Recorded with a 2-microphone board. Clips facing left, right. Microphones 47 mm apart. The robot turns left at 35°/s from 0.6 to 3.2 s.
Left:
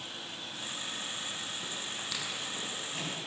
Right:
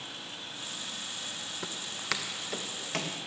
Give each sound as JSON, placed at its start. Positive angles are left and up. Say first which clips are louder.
{"t": 1.6, "sound": "footsteps", "louder": "right 3 dB", "side_deg": -60, "distance_m": 1.7}